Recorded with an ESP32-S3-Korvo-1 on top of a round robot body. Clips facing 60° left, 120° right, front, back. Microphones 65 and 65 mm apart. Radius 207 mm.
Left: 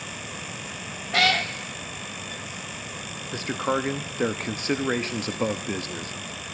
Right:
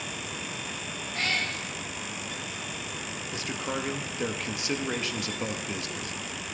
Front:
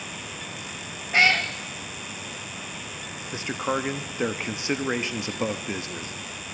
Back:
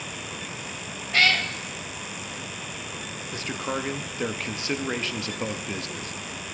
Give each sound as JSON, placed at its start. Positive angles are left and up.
{"t": 1.1, "sound": "a cat meowing", "azimuth_deg": 70, "distance_m": 0.7}
{"t": 3.3, "sound": "a man speaking", "azimuth_deg": 60, "distance_m": 1.2}